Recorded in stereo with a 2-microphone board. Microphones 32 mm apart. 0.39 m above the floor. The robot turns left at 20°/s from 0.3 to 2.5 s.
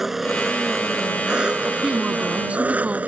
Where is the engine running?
10° right; by 3.1 s 55° right.